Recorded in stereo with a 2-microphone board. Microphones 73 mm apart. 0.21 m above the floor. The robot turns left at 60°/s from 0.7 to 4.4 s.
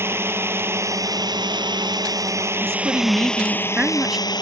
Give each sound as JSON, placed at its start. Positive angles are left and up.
{"t": 0.0, "sound": "a drone", "azimuth_deg": -35}
{"t": 2.6, "sound": "a woman speaking", "azimuth_deg": -80}